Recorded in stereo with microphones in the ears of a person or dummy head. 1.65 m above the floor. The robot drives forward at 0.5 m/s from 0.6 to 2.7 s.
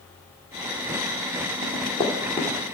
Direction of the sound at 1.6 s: 15° right (ahead or behind).